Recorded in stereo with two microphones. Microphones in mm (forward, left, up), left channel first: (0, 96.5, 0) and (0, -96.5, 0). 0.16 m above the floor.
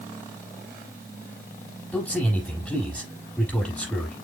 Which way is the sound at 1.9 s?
5° left (ahead or behind).